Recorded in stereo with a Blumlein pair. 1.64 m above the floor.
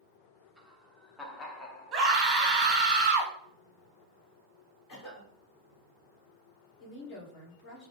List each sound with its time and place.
0.6 s laughter: 5° right, 1.3 m; by 2.9 s 75° left, 1.0 m
1.9 s a scream: 15° right, 1.0 m
4.9 s a cough: 30° left, 2.5 m
6.8 s a woman speaking: 35° left, 2 m